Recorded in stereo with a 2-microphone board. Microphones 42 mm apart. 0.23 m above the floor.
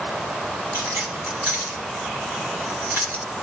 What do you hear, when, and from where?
0.7 s keys jangling: 55° right (ahead or behind), 4 m; by 3.2 s 60° right (ahead or behind), 2.5 m